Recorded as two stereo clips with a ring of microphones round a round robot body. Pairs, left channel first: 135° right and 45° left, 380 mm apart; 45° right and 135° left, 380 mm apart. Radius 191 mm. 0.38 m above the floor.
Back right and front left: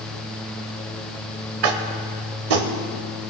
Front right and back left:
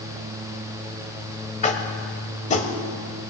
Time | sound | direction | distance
1.6 | tapping | 25° left | 1.0 m